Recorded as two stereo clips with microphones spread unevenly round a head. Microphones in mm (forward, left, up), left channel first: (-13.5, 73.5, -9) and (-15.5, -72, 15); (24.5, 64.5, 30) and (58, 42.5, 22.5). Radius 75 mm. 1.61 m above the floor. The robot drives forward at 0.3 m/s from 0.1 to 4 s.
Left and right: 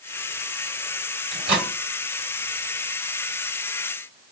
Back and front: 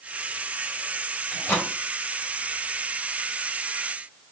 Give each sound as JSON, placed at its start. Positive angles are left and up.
{"t": 1.3, "sound": "a microwave", "azimuth_deg": -135, "distance_m": 3.0}